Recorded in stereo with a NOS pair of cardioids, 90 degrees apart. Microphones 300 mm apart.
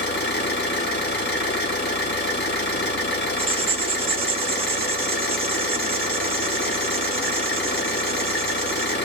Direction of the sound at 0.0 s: 35° left.